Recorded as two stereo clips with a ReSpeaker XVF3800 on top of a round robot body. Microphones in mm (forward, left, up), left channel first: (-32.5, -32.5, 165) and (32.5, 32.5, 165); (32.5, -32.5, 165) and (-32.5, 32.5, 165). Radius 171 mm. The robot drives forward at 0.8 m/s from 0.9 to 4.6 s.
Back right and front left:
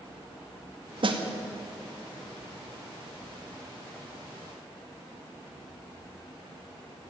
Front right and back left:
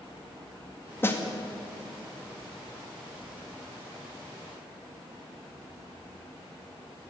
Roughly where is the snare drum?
Ahead.